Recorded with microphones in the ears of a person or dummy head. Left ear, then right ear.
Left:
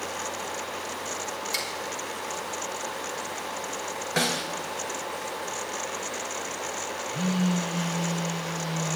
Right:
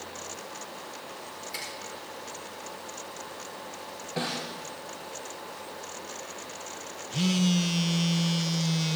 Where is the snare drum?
55° left (ahead or behind), 2.5 m.